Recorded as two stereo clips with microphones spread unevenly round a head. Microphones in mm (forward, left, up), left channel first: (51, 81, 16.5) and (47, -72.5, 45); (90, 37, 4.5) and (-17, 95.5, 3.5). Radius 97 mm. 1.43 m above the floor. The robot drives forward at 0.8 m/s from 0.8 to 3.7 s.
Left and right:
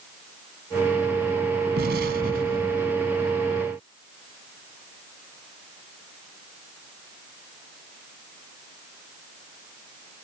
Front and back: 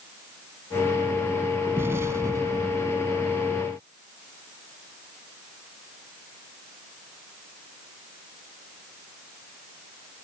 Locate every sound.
1.8 s an explosion: 130° right; by 2.9 s 135° right